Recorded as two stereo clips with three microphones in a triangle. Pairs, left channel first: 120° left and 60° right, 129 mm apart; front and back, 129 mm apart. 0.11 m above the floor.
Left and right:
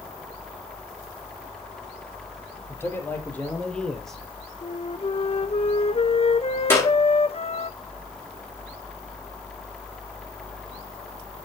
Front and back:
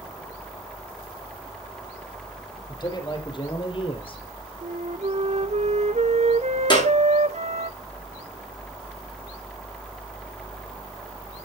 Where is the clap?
50° left, 6.5 m.